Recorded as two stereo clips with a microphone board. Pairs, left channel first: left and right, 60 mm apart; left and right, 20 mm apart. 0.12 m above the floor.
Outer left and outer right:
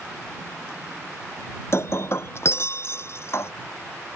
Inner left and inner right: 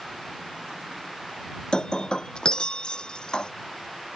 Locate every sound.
1.7 s breaking glass: 45° left (ahead or behind)